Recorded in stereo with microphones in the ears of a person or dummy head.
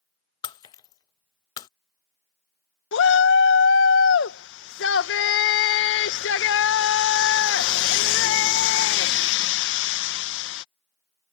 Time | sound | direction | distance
0.4 | breaking glass | 25° left (ahead or behind) | ?
2.9 | a shout | 60° left (ahead or behind) | ?